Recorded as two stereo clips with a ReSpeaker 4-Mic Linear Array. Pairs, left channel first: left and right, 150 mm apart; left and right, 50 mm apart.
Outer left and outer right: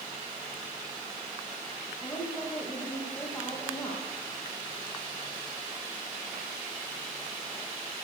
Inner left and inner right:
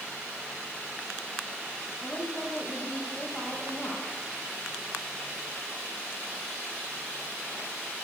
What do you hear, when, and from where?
2.0 s a woman speaking: 15° left (ahead or behind), 8.5 m